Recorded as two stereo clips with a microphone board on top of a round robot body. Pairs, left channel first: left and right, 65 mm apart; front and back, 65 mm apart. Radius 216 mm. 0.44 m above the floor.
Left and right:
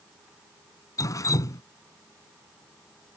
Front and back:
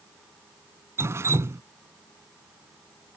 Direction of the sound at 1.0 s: 130° left.